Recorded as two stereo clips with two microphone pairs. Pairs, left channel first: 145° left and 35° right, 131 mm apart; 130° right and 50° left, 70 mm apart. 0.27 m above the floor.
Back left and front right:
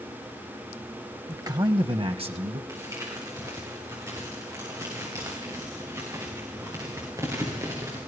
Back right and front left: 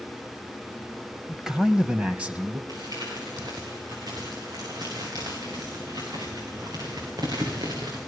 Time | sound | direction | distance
1.3 | a man speaking | 30° right | 1.0 m
2.7 | crumpling | 30° left | 8 m